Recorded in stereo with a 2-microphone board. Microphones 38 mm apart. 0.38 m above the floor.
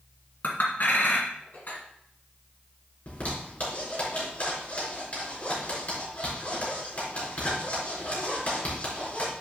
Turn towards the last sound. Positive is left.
turn(degrees=45)  # may be behind; listen again after turning